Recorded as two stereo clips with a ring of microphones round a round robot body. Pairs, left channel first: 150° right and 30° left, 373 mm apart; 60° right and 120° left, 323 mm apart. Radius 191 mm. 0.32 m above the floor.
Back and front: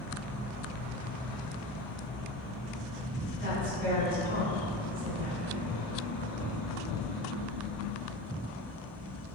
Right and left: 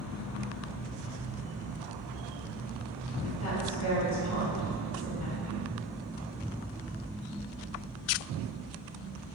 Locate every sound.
3.4 s a woman speaking: 35° right, 1.9 m